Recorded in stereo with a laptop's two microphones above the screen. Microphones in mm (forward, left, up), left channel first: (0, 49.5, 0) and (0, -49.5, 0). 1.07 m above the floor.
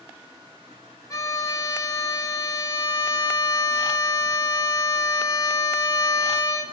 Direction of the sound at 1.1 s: 35° left (ahead or behind).